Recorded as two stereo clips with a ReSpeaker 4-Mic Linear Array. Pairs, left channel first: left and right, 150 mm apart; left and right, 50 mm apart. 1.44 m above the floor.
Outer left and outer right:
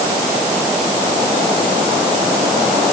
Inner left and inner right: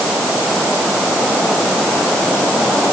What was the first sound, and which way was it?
Only background noise.